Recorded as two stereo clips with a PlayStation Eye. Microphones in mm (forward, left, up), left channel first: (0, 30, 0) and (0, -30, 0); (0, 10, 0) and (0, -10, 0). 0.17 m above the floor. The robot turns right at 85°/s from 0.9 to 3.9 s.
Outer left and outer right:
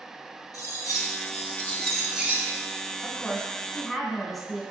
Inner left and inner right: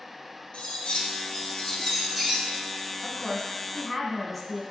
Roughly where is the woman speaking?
Left.